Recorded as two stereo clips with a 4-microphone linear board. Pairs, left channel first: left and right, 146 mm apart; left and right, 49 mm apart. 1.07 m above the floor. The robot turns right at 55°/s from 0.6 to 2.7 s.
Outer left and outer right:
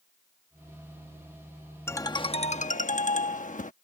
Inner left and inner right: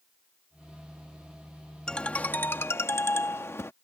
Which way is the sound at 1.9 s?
15° left.